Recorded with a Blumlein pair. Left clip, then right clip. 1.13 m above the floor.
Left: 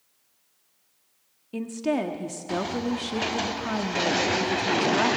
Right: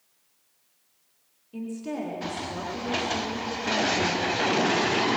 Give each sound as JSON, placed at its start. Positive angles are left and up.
{"t": 1.5, "sound": "a woman speaking", "azimuth_deg": 25, "distance_m": 1.7}